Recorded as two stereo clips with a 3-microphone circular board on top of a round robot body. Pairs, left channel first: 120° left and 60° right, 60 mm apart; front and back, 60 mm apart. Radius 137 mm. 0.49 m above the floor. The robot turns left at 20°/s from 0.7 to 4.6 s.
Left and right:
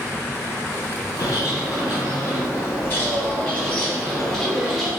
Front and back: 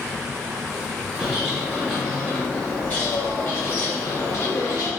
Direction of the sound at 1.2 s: 100° left.